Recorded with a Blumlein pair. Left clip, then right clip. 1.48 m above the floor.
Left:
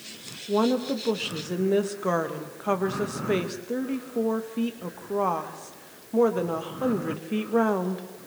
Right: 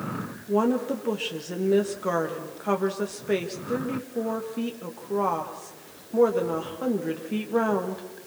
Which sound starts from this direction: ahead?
A woman speaking, at 0.5 s.